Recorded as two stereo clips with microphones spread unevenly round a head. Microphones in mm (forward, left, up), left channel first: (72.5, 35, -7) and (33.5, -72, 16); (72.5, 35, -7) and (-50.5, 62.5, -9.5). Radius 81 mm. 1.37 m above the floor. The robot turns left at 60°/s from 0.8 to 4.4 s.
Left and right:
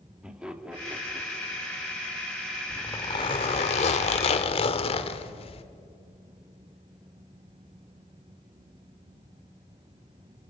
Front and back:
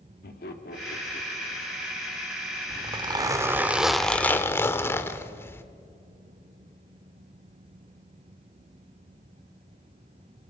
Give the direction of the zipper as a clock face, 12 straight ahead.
7 o'clock.